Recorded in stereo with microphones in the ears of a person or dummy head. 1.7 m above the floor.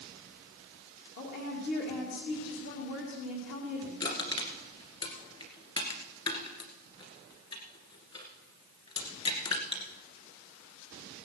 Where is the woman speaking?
60° left (ahead or behind), 2 m.